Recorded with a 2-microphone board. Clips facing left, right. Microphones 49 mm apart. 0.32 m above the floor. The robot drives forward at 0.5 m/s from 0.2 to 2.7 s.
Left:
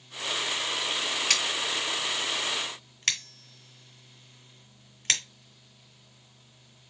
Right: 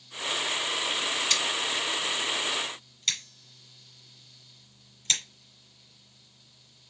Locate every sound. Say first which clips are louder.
1.3 s scissors: even; 70° left (ahead or behind), 2.5 m; by 5.2 s 60° left (ahead or behind), 2.5 m